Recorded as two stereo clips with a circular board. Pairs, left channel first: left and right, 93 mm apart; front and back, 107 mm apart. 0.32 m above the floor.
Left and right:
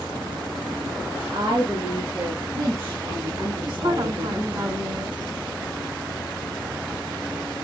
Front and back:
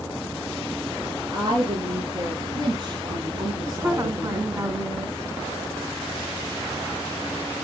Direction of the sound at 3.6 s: 120° right.